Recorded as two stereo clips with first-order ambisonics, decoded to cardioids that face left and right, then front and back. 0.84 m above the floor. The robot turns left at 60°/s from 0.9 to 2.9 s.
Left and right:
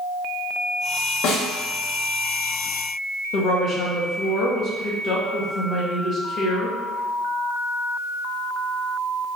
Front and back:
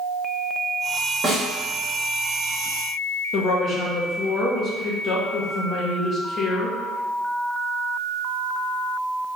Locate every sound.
1.2 s a snare drum: 110° left, 1.5 m; by 1.5 s 95° left, 1.5 m
3.3 s a woman speaking: 50° left, 1.1 m